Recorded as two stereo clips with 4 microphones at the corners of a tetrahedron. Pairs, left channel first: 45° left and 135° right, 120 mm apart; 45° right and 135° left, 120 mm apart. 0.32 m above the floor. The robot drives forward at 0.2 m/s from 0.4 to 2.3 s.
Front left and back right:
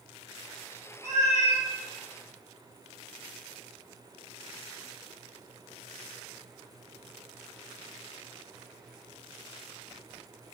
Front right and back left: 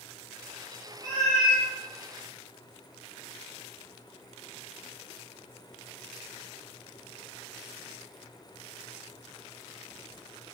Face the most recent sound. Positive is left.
turn(degrees=-140)